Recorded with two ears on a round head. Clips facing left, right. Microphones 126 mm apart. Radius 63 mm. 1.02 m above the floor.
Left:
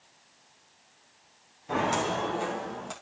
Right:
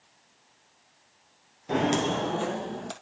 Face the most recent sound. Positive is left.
turn(degrees=-40)  # may be behind; listen again after turning